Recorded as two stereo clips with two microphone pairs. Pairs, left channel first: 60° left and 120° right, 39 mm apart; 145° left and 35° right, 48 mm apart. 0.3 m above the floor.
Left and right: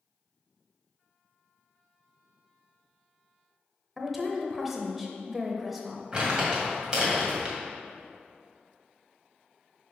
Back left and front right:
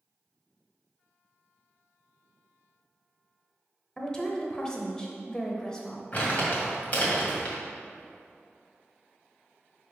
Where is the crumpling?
Straight behind, 1.8 m.